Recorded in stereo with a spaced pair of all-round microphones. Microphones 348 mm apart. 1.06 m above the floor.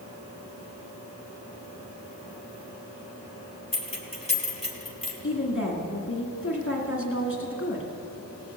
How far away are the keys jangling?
About 1.9 m.